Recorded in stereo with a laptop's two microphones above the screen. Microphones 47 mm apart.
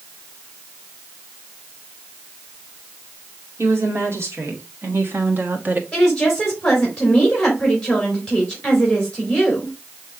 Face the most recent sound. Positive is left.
turn(degrees=10)  # may be behind; listen again after turning